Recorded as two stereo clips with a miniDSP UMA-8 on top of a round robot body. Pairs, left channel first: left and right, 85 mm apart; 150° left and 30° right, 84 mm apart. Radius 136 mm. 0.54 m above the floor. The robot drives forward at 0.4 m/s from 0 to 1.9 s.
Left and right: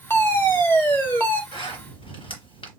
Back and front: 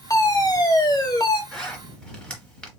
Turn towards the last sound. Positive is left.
turn(degrees=70)